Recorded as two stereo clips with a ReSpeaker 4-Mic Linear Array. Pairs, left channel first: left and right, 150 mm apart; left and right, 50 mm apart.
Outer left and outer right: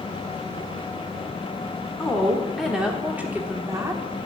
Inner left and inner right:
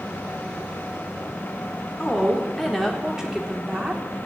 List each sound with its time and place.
2.0 s a woman speaking: 5° left (ahead or behind), 1.5 m; by 4.0 s 20° right (ahead or behind), 1.3 m